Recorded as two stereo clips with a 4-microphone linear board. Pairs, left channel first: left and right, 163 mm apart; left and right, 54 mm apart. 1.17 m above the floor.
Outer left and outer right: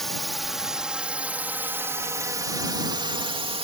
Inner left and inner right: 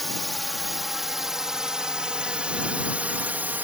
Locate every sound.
0.0 s a drone: centre (ahead or behind); by 3.6 s 35° right (ahead or behind)